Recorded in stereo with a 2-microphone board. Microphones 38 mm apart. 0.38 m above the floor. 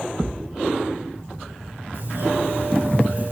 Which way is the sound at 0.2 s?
Centre (ahead or behind).